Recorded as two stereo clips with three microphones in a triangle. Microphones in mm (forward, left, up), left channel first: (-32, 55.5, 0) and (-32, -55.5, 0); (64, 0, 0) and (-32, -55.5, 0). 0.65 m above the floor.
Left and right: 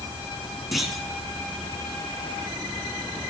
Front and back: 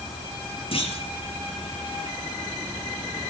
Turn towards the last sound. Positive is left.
turn(degrees=0)